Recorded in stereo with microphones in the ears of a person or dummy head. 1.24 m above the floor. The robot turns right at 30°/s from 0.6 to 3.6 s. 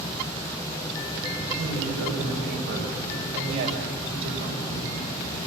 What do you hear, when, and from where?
1.6 s a woman speaking: 100° right, 5 m; by 5.0 s 40° right, 5 m